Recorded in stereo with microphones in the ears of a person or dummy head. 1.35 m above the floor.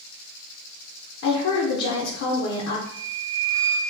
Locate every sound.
1.2 s a woman speaking: 65° left (ahead or behind), 0.6 m
2.9 s a flute: 10° left (ahead or behind), 0.6 m